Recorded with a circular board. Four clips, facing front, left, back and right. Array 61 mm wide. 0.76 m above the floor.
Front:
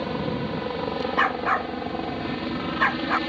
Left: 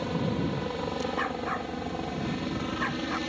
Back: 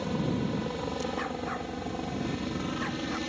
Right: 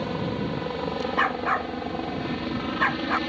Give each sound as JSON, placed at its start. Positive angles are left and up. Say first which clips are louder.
{"t": 0.0, "sound": "a helicopter", "louder": "right 1 dB, front 3 dB", "azimuth_deg": -20}
{"t": 1.2, "sound": "a dog barking", "louder": "right 7 dB, front 11 dB", "azimuth_deg": -30}